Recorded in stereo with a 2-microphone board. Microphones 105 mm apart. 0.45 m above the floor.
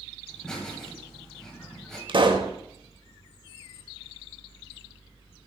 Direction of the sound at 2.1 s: 50° right (ahead or behind).